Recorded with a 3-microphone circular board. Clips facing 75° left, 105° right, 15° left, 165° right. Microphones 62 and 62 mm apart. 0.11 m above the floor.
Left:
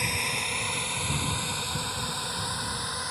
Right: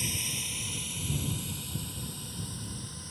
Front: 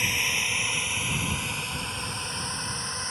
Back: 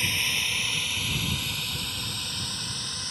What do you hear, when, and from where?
0.0 s a drone: 90° left; by 3.1 s 75° left